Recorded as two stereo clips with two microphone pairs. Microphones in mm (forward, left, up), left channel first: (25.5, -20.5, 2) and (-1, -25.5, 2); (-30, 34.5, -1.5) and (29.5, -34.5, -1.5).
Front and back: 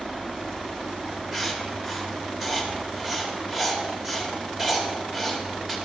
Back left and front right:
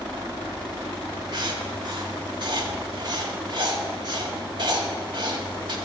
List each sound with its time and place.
1.3 s writing: 85° right, 1.5 m